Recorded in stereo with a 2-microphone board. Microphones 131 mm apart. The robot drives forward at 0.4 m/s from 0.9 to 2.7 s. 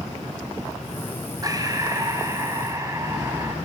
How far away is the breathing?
About 1.9 m.